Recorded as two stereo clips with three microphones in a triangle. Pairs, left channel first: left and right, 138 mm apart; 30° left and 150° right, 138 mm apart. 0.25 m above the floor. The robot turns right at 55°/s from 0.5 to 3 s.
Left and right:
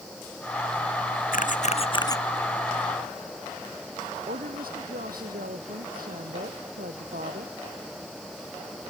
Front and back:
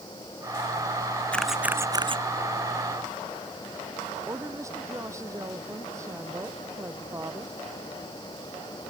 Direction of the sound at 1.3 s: 110° left.